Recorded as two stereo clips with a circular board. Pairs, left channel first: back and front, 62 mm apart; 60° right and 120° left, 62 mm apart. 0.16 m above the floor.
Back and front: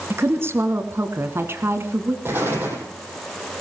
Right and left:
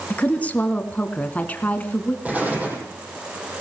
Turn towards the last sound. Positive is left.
turn(degrees=55)